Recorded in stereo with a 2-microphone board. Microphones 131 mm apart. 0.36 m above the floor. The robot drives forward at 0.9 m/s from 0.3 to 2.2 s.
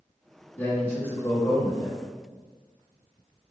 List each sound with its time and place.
0.6 s a man speaking: 15° left (ahead or behind), 1.8 m